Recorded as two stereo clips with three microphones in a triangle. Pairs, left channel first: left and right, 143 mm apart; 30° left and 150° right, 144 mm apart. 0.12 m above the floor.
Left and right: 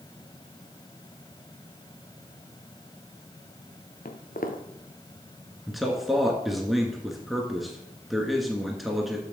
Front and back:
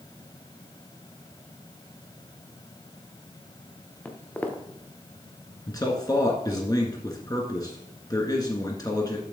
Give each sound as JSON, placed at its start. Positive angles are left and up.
{"t": 4.0, "sound": "footsteps", "azimuth_deg": 110, "distance_m": 1.7}
{"t": 5.7, "sound": "a man speaking", "azimuth_deg": 0, "distance_m": 1.6}